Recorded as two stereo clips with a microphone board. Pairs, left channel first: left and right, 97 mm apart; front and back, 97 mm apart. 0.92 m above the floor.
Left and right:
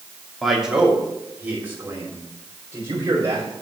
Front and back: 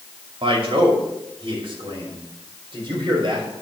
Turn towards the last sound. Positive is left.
turn(degrees=-145)